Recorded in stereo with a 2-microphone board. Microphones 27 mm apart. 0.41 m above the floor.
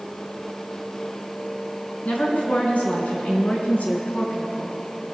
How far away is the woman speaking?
About 4 m.